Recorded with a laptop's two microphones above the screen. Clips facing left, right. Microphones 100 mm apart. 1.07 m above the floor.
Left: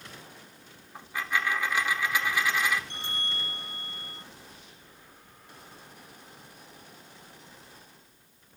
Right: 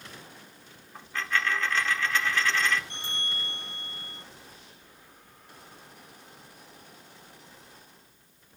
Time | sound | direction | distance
0.9 | a dropped coin | 10° left (ahead or behind) | 0.8 m
2.9 | a bell | 30° left (ahead or behind) | 6.5 m